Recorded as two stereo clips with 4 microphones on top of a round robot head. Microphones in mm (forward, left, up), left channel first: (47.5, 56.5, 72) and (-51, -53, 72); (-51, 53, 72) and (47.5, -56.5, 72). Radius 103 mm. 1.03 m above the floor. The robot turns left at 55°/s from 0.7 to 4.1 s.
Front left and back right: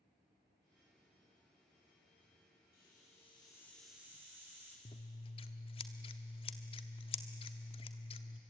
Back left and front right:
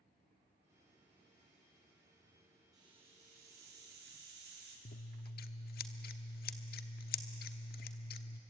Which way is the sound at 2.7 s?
20° left.